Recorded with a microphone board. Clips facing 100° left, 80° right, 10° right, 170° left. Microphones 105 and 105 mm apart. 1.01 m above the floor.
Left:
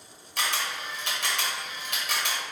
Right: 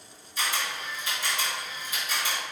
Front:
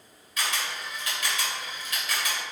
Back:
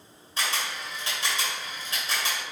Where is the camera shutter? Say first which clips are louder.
Left 1 dB, back 1 dB; 110° left, 1.0 m.